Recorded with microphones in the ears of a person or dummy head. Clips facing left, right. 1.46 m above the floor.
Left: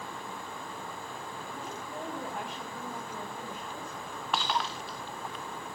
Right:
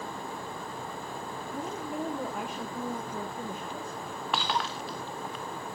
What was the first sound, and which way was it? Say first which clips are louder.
A woman speaking: right 8 dB; 60° right (ahead or behind).